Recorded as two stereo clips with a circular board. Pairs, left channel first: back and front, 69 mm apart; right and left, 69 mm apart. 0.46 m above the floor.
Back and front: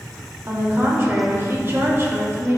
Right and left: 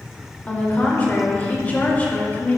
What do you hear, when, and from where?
0.5 s a woman speaking: 30° right, 1.6 m